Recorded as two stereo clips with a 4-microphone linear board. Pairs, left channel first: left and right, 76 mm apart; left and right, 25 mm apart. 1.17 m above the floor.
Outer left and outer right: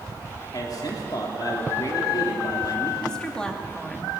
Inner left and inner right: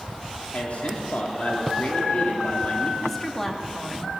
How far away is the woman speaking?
About 2.5 m.